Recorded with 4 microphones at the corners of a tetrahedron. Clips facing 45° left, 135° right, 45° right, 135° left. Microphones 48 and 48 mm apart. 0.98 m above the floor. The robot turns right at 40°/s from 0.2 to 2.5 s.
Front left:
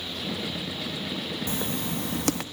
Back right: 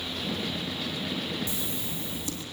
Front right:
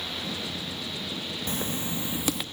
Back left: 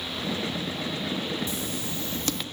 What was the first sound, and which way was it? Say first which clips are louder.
Writing: front left 5 dB, front right 1 dB; straight ahead.